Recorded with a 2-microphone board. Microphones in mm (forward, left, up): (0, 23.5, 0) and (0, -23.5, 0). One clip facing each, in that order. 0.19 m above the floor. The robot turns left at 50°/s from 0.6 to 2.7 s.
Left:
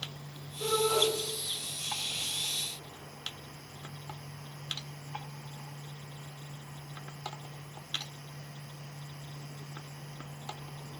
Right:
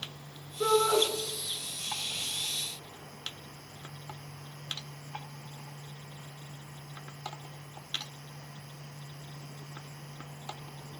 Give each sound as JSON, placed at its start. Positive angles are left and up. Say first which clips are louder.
{"t": 0.6, "sound": "a shout", "louder": "right 4 dB", "side_deg": -65, "distance_m": 2.5}